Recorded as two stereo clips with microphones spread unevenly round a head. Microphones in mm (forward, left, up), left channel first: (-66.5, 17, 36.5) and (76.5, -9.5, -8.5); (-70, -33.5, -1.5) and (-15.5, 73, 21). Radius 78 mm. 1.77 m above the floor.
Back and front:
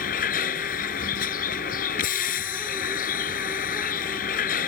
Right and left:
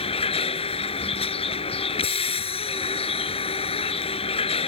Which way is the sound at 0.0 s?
155° right.